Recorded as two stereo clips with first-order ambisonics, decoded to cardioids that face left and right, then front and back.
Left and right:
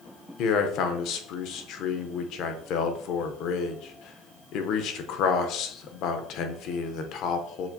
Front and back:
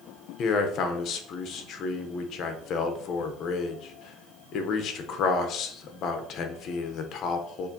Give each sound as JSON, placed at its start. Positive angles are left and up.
{"t": 0.4, "sound": "a man speaking", "azimuth_deg": 50, "distance_m": 0.7}